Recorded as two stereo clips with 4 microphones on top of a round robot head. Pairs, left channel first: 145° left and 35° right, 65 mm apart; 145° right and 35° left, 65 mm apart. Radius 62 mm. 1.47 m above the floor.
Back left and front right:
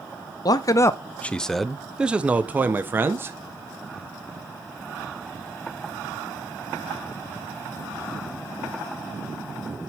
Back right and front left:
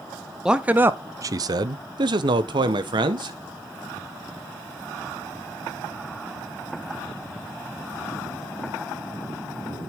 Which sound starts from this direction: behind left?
A man speaking, at 0.5 s.